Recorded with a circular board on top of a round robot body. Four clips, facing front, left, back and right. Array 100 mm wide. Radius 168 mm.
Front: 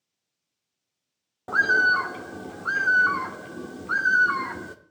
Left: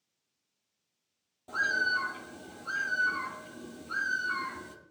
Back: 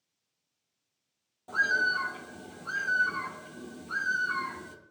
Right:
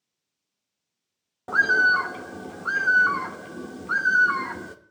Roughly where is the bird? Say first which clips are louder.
Right 10 dB, front 7 dB; ahead right.